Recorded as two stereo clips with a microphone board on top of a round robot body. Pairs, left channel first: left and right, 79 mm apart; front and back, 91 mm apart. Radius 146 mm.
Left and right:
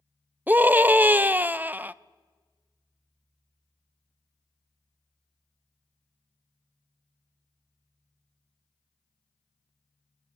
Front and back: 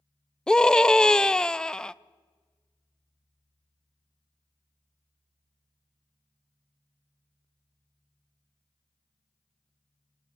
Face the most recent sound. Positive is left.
turn(degrees=-70)